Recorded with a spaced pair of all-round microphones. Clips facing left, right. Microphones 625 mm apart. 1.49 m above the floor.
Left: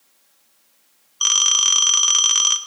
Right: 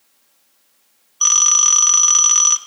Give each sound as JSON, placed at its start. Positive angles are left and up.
{"t": 1.2, "sound": "a phone ringing", "side_deg": 20, "distance_m": 1.0}